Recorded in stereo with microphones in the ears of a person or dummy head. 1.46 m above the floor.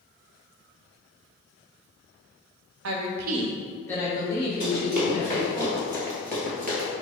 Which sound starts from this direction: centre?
Running footsteps, at 4.6 s.